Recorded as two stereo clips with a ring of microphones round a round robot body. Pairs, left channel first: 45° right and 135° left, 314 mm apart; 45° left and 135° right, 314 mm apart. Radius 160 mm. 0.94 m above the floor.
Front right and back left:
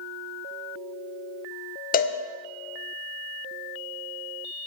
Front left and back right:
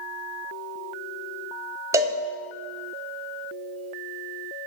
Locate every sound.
1.9 s a cowbell: 65° right, 0.6 m